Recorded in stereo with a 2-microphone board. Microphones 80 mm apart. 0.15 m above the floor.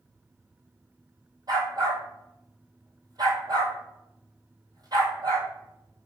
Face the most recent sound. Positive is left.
turn(degrees=-50)  # may be behind; listen again after turning